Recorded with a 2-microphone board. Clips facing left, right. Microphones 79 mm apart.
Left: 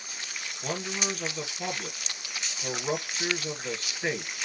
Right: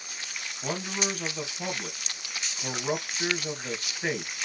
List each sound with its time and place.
0.6 s a man speaking: 10° right (ahead or behind), 2 m